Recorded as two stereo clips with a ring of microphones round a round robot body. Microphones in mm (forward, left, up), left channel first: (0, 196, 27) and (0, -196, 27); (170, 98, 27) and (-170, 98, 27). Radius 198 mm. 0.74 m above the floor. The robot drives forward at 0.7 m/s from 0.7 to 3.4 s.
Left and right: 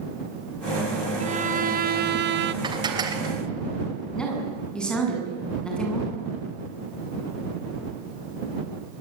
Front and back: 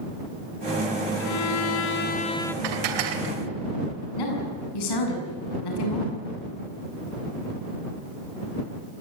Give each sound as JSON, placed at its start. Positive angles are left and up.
{"t": 1.2, "sound": "a violin", "azimuth_deg": -20, "distance_m": 1.3}
{"t": 2.6, "sound": "dishes clattering", "azimuth_deg": -170, "distance_m": 2.5}
{"t": 4.2, "sound": "a woman speaking", "azimuth_deg": 0, "distance_m": 8.0}